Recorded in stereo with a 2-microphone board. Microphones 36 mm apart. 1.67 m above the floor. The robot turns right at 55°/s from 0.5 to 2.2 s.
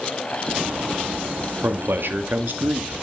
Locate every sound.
1.6 s a man speaking: 85° right, 0.9 m; by 3.0 s 60° right (ahead or behind), 0.9 m